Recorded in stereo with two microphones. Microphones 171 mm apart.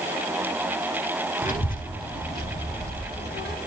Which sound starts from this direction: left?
A child speaking, at 1.4 s.